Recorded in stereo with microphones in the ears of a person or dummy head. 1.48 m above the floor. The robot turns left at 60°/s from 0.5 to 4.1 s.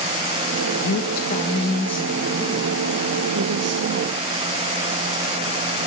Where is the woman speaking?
70° left, 1.7 m; by 4.4 s 130° right, 1.7 m.